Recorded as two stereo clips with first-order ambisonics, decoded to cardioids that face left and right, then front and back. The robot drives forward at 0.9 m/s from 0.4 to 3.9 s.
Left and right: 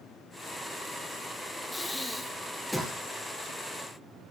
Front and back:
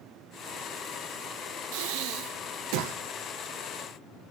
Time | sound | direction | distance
1.7 | breathing | 175° left | 0.9 m